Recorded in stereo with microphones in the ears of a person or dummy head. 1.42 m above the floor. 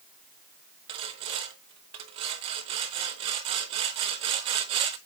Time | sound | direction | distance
0.9 | sawing | 25° right (ahead or behind) | 0.6 m